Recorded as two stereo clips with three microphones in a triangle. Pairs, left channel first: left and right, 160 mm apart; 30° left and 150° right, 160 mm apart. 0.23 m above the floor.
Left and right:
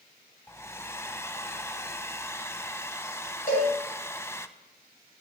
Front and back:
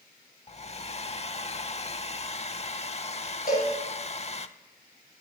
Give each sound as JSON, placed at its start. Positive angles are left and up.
{"t": 0.5, "sound": "a hair dryer", "azimuth_deg": 25, "distance_m": 0.6}
{"t": 3.5, "sound": "a cowbell", "azimuth_deg": 55, "distance_m": 7.5}